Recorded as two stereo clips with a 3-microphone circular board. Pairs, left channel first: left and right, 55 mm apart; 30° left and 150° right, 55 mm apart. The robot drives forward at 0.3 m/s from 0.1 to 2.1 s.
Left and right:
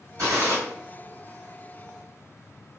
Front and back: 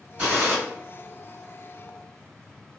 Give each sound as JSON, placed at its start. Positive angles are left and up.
{"t": 0.2, "sound": "a gunshot", "azimuth_deg": -95, "distance_m": 1.5}